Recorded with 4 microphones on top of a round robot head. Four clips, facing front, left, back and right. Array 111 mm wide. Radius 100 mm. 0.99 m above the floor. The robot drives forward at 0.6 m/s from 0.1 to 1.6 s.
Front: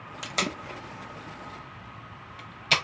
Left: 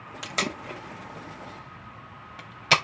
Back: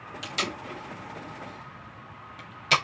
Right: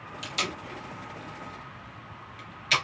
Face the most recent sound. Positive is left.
turn(degrees=95)